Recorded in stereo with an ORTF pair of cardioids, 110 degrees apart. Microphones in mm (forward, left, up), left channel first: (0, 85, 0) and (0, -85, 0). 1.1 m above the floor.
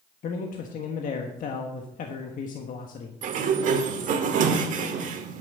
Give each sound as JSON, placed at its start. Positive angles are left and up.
{"t": 0.2, "sound": "a man speaking", "azimuth_deg": 55, "distance_m": 1.4}
{"t": 3.2, "sound": "a sliding door", "azimuth_deg": -55, "distance_m": 1.6}